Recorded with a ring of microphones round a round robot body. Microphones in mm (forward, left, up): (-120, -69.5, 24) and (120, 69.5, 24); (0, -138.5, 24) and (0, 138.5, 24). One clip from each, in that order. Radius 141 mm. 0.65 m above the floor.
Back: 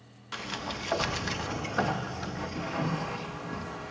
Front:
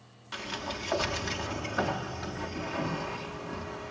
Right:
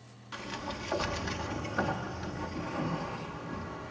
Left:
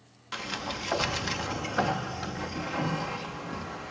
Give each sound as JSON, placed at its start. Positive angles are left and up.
{"t": 0.3, "sound": "a sliding door", "azimuth_deg": 125, "distance_m": 0.5}